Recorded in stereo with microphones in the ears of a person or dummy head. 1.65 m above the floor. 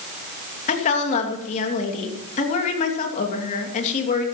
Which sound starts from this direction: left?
A woman speaking, at 0.7 s.